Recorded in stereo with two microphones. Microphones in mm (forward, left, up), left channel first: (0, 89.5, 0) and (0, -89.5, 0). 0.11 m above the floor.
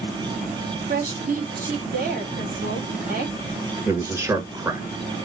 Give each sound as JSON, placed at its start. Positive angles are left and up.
{"t": 0.9, "sound": "a woman speaking", "side_deg": -55, "distance_m": 3.0}
{"t": 3.9, "sound": "a man speaking", "side_deg": -15, "distance_m": 1.6}